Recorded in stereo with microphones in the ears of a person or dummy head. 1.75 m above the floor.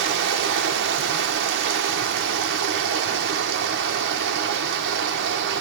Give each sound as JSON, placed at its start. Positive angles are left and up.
{"t": 0.0, "sound": "running water", "side_deg": -65, "distance_m": 1.3}